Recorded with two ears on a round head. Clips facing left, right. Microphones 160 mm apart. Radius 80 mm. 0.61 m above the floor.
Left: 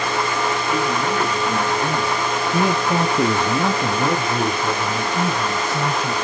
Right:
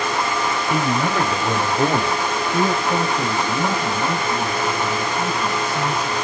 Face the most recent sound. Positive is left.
turn(degrees=65)  # may be behind; listen again after turning